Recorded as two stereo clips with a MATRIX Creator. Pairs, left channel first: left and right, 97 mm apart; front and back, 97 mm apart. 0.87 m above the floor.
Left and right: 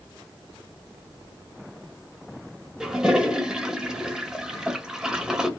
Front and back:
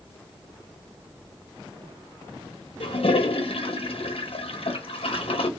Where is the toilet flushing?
5° right, 0.6 m.